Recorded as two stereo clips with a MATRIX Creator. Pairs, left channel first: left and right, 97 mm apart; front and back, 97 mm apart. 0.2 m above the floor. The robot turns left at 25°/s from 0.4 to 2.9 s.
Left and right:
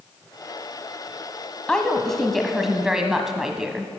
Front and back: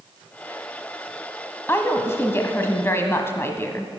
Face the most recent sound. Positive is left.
turn(degrees=-15)